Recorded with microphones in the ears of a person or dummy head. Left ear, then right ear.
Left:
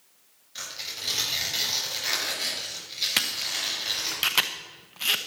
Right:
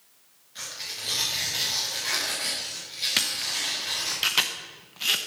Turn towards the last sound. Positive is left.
turn(degrees=10)  # may be behind; listen again after turning